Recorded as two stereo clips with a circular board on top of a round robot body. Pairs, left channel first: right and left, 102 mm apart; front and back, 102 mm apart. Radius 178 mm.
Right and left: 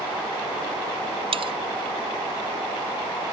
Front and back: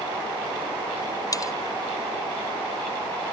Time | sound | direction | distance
1.3 | cutlery clinking | 55° left | ?